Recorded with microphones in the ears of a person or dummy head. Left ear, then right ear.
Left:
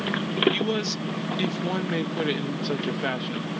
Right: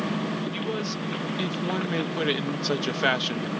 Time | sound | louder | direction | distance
0.5 | a man speaking | left 4 dB | 25° left (ahead or behind) | ?